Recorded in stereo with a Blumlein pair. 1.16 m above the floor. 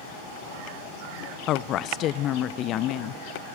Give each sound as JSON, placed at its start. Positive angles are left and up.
{"t": 1.5, "sound": "a woman speaking", "azimuth_deg": 35, "distance_m": 0.5}